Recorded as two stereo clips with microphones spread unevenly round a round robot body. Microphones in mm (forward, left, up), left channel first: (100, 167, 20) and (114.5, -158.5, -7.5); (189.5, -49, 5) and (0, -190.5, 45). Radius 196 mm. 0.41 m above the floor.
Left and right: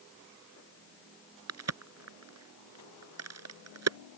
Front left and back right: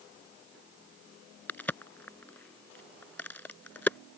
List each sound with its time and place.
1.5 s a crack: 45° right